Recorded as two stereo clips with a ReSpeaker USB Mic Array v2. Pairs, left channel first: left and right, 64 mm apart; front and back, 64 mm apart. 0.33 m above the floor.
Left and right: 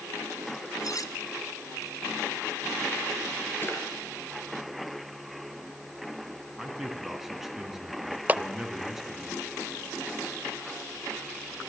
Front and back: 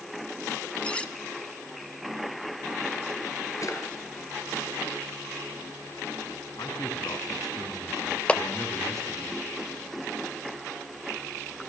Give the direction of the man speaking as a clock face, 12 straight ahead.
12 o'clock.